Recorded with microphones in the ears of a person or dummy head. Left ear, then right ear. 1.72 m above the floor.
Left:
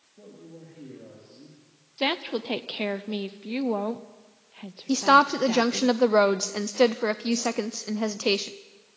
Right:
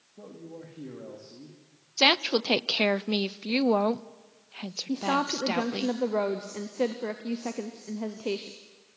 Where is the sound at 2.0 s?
30° right (ahead or behind), 0.6 m.